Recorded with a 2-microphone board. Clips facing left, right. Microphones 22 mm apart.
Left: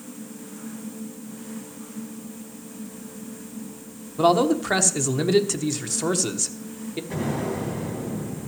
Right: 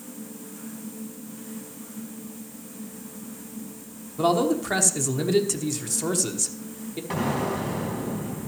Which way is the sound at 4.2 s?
20° left (ahead or behind).